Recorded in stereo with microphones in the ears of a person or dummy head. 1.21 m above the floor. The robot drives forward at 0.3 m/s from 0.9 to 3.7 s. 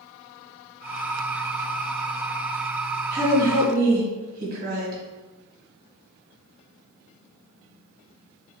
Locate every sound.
3.1 s a woman speaking: 40° right (ahead or behind), 1.5 m